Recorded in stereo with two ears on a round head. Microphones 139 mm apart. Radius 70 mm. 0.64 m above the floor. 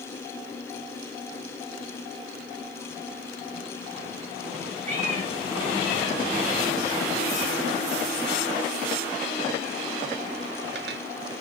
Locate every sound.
4.9 s a cat meowing: 45° right (ahead or behind), 3.5 m; by 11.0 s 70° right (ahead or behind), 0.6 m